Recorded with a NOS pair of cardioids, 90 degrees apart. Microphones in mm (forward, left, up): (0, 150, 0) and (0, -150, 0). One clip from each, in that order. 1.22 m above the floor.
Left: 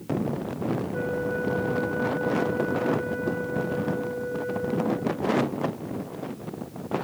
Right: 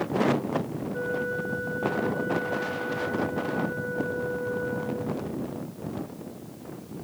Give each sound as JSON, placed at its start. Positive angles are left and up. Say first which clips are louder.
{"t": 0.9, "sound": "a flute", "louder": "right 3 dB", "azimuth_deg": -5, "distance_m": 5.5}